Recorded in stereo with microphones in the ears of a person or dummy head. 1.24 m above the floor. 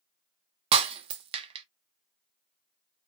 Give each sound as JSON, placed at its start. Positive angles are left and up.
{"t": 0.7, "sound": "breaking glass", "side_deg": -40, "distance_m": 0.6}